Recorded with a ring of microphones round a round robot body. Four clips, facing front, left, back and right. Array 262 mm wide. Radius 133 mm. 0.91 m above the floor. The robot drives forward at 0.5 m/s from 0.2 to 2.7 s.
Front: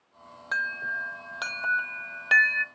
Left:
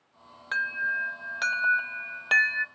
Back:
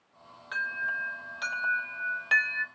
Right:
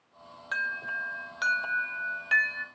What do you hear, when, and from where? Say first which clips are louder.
0.5 s an alarm: left 4 dB, front 2 dB; 20° left, 1.3 m; by 2.6 s 70° left, 0.6 m